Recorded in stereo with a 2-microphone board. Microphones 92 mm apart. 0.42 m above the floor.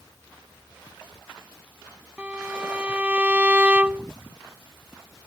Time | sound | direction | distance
2.2 | a violin | 15° right (ahead or behind) | ?